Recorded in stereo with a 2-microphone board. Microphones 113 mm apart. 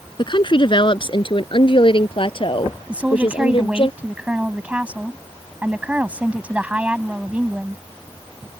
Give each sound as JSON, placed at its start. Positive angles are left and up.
{"t": 0.2, "sound": "a woman speaking", "side_deg": 45}
{"t": 2.9, "sound": "a woman speaking", "side_deg": -10}